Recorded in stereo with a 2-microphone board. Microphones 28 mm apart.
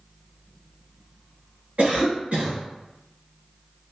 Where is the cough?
65° right (ahead or behind), 1.6 m.